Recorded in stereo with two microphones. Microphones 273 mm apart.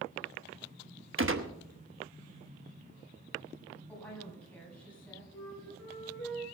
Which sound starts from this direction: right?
A gunshot, at 1.2 s.